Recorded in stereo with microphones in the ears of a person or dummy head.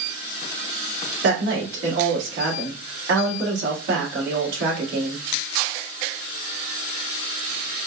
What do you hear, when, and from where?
1.2 s a woman speaking: 70° right (ahead or behind), 2.5 m